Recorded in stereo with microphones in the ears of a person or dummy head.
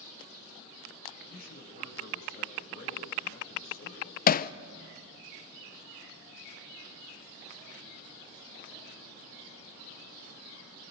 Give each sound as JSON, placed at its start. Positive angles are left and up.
{"t": 1.3, "sound": "a man speaking", "side_deg": 50, "distance_m": 6.5}
{"t": 4.3, "sound": "hammering", "side_deg": 35, "distance_m": 0.6}